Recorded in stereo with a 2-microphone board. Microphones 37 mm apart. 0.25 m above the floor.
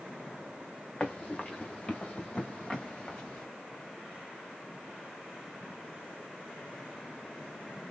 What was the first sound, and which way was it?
Running footsteps, 20° left (ahead or behind).